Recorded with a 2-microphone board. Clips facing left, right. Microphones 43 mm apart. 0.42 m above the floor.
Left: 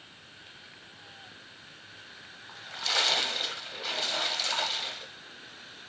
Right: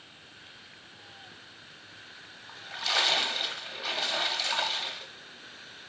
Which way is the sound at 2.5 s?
5° right (ahead or behind).